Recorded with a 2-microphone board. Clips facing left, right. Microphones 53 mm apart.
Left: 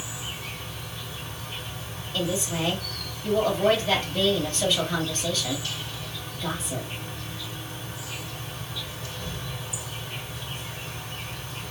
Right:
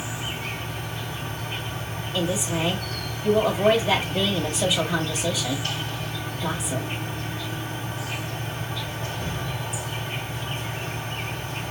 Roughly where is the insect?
Right.